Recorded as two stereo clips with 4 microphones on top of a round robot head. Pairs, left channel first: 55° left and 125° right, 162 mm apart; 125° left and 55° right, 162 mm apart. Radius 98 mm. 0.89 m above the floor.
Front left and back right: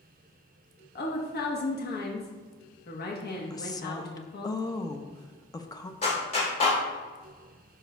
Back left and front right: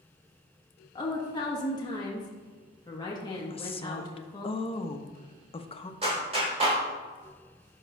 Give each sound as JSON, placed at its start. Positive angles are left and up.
{"t": 0.9, "sound": "a woman speaking", "azimuth_deg": 65, "distance_m": 1.1}
{"t": 3.5, "sound": "a woman speaking", "azimuth_deg": 105, "distance_m": 0.7}
{"t": 6.0, "sound": "a clap", "azimuth_deg": 0, "distance_m": 3.0}